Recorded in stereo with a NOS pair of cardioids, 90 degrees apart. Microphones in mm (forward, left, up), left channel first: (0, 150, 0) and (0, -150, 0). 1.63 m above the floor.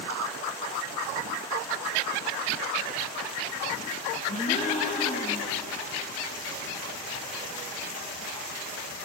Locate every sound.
4.3 s a gasp: 25° left, 5 m